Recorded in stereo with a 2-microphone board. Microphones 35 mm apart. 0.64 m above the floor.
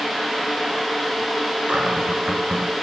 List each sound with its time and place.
1.7 s a cupboard door: 40° right (ahead or behind), 1.9 m